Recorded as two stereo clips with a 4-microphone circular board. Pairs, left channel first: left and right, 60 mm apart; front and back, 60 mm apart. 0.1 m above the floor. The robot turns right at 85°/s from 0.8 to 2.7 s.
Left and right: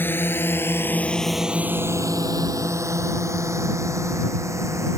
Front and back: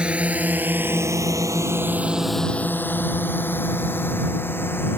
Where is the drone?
120° left; by 5.0 s 50° right.